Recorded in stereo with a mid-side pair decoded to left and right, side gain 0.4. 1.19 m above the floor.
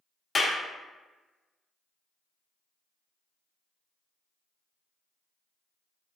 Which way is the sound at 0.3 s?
40° left.